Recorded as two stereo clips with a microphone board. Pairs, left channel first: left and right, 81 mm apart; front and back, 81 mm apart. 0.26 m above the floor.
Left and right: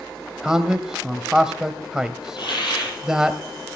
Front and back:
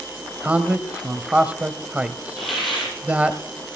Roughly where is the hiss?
Left.